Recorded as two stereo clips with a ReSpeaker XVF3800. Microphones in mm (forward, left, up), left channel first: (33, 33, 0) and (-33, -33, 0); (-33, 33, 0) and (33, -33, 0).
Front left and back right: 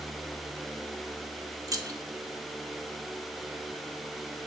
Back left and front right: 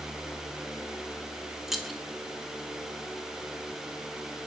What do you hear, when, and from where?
1.7 s keys jangling: 130° right, 0.7 m